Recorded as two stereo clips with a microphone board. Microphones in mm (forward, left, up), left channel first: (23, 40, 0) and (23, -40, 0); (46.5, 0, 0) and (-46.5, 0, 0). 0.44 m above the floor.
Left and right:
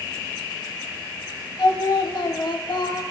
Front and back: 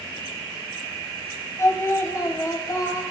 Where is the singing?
60° left, 0.6 m.